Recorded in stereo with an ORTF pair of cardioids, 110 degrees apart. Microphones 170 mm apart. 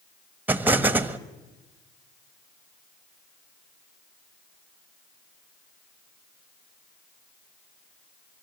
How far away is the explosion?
About 1.2 m.